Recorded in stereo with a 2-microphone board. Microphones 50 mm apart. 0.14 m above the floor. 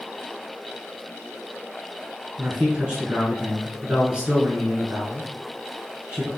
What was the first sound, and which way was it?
A man speaking, 20° right (ahead or behind).